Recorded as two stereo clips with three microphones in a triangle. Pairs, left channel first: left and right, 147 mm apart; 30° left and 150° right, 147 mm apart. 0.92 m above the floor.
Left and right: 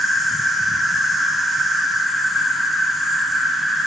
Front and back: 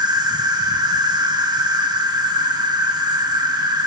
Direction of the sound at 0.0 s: Straight behind.